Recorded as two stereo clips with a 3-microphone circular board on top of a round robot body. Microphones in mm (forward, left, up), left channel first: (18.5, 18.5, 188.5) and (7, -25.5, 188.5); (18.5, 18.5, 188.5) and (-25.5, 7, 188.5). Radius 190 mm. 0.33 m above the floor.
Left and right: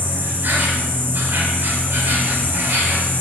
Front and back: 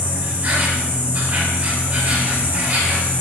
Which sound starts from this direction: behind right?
An insect, at 0.0 s.